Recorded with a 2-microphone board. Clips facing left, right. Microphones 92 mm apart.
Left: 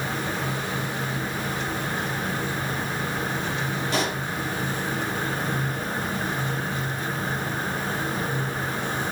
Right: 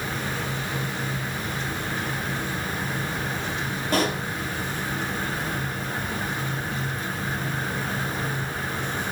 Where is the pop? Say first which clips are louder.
Right 4 dB; 50° right (ahead or behind), 4.5 m.